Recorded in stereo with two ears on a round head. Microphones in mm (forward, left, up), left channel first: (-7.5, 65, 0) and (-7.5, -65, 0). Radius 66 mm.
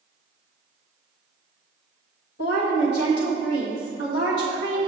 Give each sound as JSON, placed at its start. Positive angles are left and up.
{"t": 2.4, "sound": "a woman speaking", "side_deg": 85, "distance_m": 1.9}